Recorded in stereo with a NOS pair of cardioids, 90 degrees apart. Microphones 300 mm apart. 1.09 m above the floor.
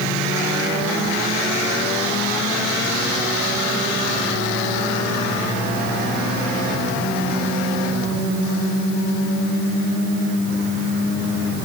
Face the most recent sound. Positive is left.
No sound to turn to.